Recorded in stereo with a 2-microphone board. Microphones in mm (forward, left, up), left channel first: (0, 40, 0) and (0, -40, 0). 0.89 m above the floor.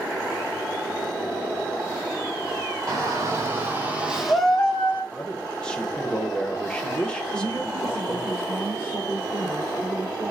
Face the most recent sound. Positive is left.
turn(degrees=-25)  # may be behind; listen again after turning